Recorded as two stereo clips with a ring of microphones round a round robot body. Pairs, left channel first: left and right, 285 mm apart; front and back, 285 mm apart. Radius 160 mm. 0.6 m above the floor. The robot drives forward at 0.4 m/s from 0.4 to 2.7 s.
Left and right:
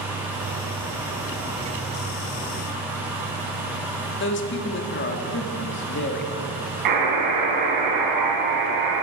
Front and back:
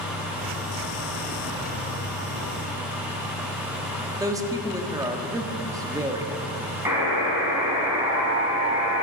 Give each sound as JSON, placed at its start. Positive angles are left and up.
{"t": 4.2, "sound": "a man speaking", "azimuth_deg": 105, "distance_m": 1.5}
{"t": 6.8, "sound": "a buzzer", "azimuth_deg": -100, "distance_m": 3.5}